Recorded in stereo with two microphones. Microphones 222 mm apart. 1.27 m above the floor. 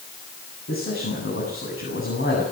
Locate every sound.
0.7 s a man speaking: 70° left (ahead or behind), 8.5 m